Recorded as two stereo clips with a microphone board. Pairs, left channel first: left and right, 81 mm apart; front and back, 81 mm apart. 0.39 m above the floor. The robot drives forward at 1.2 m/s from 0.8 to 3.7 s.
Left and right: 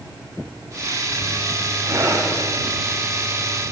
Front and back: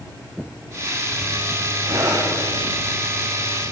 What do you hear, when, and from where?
1.8 s breathing: 140° right, 8 m; by 2.3 s 145° right, 8.5 m